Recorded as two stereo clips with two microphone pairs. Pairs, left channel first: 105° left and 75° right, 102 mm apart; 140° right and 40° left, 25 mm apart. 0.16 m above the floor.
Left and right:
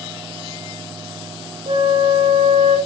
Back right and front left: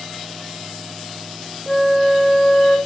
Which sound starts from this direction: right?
A flute, at 1.7 s.